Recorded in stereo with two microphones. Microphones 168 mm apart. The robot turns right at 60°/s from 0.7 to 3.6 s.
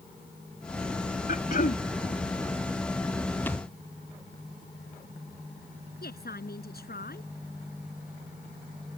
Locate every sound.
1.3 s throat clearing: 85° left; by 1.8 s 115° left
3.5 s a thud: 10° left (ahead or behind); by 3.7 s 20° left (ahead or behind)
6.0 s a woman speaking: 70° left (ahead or behind)